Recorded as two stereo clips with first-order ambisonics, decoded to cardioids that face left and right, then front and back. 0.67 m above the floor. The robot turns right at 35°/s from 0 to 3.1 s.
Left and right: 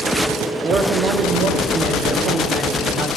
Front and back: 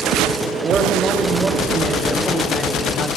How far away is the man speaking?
About 1.3 m.